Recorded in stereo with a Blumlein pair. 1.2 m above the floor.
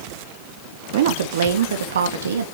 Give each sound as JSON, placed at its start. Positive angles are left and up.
{"t": 0.9, "sound": "a woman speaking", "azimuth_deg": -55, "distance_m": 1.3}